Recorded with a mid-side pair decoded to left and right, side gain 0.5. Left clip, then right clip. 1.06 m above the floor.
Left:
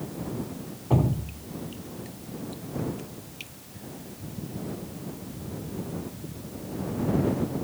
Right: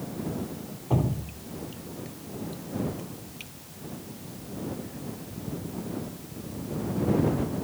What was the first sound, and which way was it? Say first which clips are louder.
Dripping: left 2 dB; 20° left.